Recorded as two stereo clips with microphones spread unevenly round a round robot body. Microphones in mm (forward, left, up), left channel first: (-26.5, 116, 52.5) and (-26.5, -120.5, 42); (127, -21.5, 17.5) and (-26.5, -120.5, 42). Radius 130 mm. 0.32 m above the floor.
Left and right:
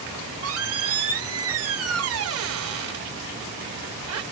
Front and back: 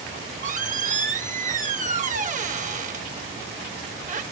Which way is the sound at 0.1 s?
95° right.